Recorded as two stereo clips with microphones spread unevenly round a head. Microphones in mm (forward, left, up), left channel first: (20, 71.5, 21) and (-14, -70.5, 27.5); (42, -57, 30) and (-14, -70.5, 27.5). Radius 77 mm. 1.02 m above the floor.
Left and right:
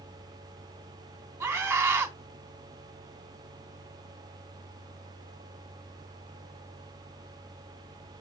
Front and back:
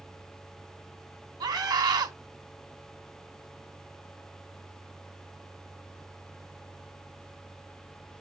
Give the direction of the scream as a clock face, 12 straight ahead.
6 o'clock.